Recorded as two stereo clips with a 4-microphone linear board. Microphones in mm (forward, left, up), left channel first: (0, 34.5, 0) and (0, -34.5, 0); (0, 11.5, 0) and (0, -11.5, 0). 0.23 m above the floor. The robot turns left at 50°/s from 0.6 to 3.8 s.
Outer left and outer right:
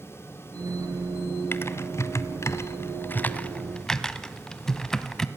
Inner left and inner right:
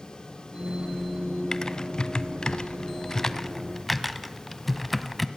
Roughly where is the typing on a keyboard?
Left.